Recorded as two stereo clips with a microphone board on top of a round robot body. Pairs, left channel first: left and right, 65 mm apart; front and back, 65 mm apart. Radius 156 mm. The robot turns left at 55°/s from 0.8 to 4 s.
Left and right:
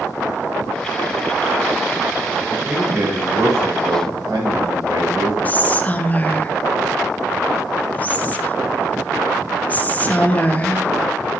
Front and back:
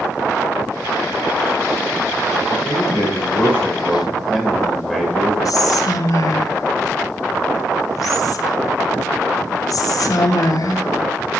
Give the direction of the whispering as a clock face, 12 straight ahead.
11 o'clock.